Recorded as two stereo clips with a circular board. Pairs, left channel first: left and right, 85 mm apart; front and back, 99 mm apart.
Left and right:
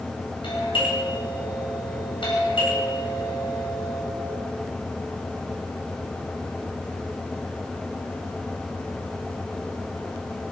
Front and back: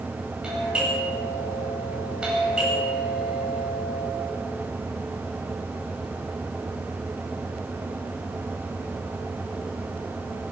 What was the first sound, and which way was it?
A doorbell, 100° left.